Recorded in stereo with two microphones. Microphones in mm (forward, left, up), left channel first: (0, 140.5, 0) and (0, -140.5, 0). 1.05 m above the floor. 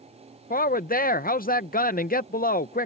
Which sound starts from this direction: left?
A woman speaking, at 0.5 s.